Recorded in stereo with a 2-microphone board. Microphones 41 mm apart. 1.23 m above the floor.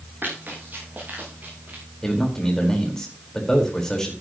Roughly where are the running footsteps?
Right.